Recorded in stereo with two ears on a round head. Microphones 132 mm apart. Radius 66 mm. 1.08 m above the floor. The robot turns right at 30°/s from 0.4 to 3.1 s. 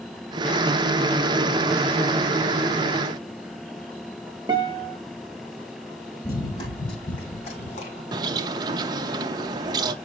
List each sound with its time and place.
4.5 s a guitar: 30° right (ahead or behind), 1.0 m
6.2 s running footsteps: 25° left (ahead or behind), 1.5 m; by 8.0 s 55° left (ahead or behind), 2.5 m
8.1 s a bird: 25° right (ahead or behind), 0.6 m